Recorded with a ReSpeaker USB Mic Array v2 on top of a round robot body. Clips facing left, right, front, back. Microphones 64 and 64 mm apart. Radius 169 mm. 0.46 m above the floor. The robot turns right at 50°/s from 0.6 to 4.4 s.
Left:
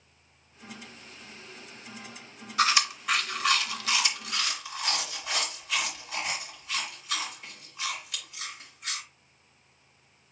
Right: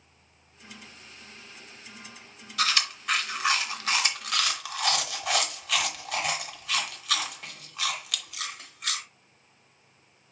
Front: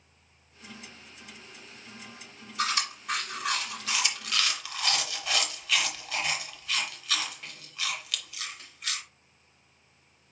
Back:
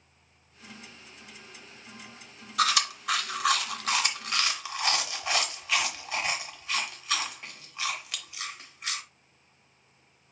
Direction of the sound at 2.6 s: 155° left.